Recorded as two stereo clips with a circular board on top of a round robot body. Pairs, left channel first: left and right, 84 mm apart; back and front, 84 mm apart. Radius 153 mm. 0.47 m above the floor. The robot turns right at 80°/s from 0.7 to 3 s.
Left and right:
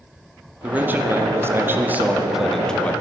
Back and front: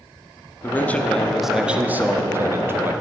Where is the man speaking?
145° right, 1.3 m; by 2.9 s 35° left, 1.3 m.